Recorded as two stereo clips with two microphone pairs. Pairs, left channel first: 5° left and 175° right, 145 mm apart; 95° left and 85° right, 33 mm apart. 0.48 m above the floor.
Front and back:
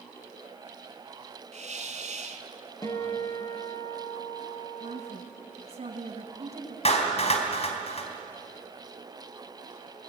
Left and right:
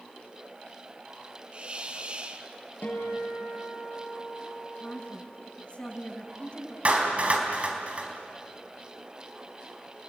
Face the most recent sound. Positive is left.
turn(degrees=-35)